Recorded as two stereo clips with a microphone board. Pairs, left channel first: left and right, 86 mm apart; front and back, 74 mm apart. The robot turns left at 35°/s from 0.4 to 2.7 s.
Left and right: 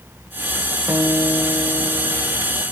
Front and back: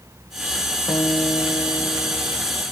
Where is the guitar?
35° right, 0.7 m; by 2.4 s 85° right, 0.7 m.